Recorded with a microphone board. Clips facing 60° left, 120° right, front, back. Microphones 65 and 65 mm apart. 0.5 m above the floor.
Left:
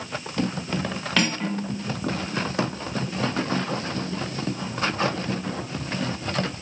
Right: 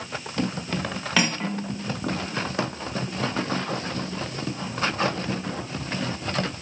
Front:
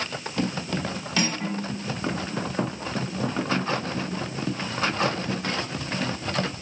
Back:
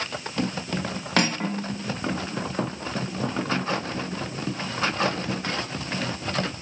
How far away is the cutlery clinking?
About 1.2 m.